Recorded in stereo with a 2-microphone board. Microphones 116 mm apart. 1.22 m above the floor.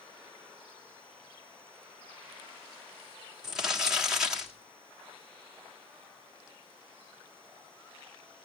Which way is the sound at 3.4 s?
5° right (ahead or behind).